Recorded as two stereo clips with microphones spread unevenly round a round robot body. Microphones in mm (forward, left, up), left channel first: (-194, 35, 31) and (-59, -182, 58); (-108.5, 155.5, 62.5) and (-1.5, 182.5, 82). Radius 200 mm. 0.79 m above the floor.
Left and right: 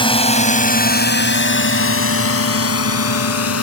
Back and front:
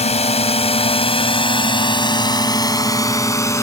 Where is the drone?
170° right; by 3.6 s 130° left.